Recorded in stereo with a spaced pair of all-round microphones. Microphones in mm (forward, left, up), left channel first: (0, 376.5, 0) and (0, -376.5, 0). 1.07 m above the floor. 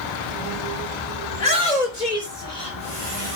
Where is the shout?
70° left (ahead or behind), 3.5 m; by 3.4 s 75° left (ahead or behind), 5.5 m.